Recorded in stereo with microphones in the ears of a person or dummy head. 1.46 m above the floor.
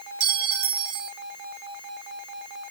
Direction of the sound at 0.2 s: 60° right (ahead or behind).